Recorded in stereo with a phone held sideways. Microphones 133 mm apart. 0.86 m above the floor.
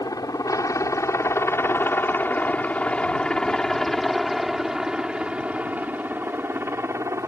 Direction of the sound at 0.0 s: 30° left (ahead or behind).